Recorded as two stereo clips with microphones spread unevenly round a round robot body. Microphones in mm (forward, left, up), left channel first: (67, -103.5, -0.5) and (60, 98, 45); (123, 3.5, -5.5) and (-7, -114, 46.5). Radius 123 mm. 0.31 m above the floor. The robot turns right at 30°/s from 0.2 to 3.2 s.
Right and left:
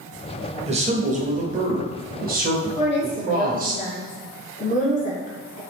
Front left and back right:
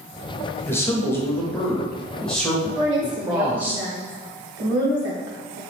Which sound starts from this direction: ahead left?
A man speaking, at 0.7 s.